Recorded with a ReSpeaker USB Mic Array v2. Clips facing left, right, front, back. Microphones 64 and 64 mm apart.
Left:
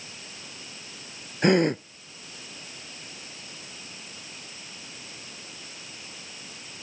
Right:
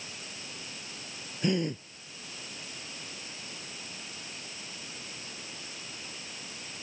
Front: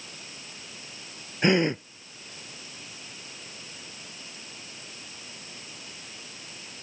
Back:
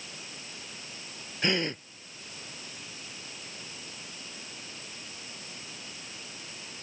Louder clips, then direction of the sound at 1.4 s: Left 9 dB, front 7 dB; 65° left.